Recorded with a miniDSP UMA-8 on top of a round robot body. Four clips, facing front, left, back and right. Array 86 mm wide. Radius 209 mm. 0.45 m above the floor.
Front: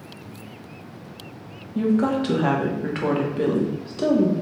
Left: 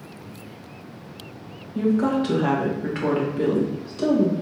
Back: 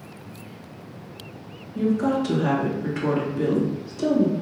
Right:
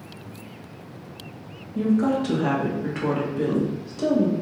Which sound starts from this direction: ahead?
A woman speaking, at 1.8 s.